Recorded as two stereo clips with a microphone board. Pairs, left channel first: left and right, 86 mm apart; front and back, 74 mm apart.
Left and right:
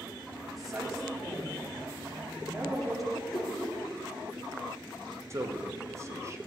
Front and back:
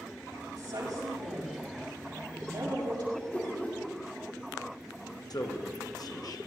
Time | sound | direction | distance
0.6 | a woman speaking | 175° right | 6.5 m
3.1 | a whoosh | 70° left | 2.5 m
5.3 | a man speaking | 30° right | 1.5 m